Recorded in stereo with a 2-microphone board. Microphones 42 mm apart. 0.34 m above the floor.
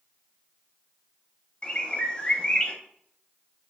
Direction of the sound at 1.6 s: 20° left (ahead or behind).